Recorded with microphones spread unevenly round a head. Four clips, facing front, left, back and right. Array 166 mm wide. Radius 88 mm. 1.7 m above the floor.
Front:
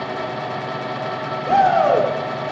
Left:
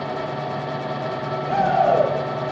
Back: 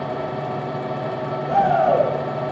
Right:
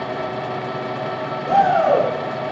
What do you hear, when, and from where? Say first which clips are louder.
1.5 s a shout: right 3 dB, front 2 dB; 15° right, 6.5 m